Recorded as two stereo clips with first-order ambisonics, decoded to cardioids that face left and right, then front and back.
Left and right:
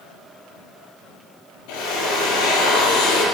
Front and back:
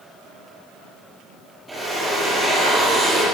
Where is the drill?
95° left, 9 m.